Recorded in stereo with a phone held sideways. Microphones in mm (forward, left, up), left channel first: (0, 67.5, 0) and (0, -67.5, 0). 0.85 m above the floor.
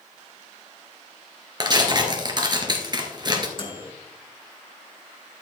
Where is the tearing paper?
30° right (ahead or behind), 2 m.